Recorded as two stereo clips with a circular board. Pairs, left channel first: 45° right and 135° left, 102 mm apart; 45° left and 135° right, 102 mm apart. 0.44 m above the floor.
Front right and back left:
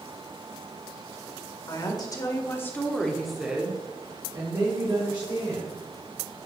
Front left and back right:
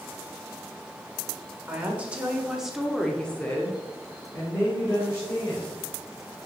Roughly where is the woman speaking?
Ahead right.